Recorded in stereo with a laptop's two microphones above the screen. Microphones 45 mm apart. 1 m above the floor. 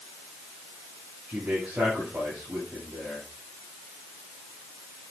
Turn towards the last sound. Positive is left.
turn(degrees=-35)  # may be behind; listen again after turning